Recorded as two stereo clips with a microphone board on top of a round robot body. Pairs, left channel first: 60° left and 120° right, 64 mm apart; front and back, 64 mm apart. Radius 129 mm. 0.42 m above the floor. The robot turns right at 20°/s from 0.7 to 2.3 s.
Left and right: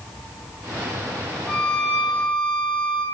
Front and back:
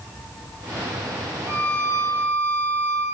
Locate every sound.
1.5 s a violin: 135° left, 1.0 m; by 3.0 s 155° left, 1.0 m